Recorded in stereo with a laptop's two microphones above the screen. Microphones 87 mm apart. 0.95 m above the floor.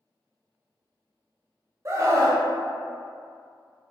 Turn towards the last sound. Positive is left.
turn(degrees=-35)  # may be behind; listen again after turning